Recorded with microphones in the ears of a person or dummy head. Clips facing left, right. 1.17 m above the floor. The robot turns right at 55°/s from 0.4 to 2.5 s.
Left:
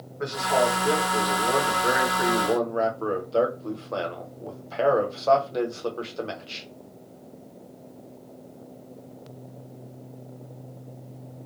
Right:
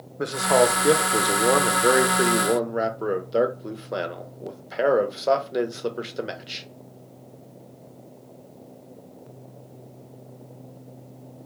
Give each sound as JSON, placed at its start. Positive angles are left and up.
{"t": 0.2, "sound": "a man speaking", "azimuth_deg": -135, "distance_m": 0.6}